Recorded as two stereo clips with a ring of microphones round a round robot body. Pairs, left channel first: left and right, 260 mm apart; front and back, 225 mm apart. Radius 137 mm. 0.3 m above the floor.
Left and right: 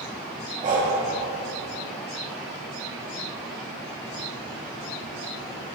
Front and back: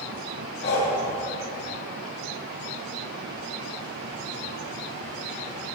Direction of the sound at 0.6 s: 35° right.